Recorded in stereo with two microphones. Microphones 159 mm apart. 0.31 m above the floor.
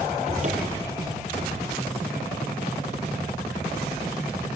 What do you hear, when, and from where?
0.3 s a cupboard door: 45° right (ahead or behind), 4.5 m